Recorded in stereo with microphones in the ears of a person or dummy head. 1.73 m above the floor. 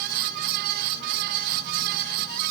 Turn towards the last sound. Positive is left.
No sound to turn to.